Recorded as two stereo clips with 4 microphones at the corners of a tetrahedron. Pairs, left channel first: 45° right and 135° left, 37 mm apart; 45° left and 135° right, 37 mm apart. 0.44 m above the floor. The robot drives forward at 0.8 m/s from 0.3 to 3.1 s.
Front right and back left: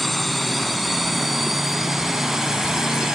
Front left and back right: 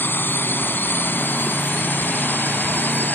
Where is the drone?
45° left; by 3.2 s 60° left.